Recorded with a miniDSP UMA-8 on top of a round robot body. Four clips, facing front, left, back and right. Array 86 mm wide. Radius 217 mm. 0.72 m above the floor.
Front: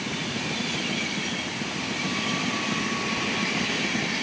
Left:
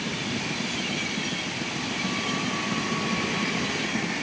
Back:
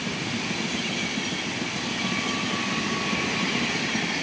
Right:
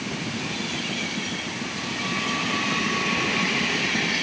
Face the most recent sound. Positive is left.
No sound to turn to.